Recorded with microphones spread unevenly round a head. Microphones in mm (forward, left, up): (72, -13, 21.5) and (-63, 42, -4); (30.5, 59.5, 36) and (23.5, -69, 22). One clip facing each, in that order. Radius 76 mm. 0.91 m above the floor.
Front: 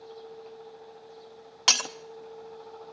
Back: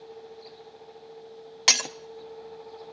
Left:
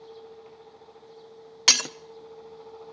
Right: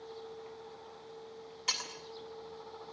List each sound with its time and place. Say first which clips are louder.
1.7 s breaking glass: even, left 11 dB; 80° left, 0.6 m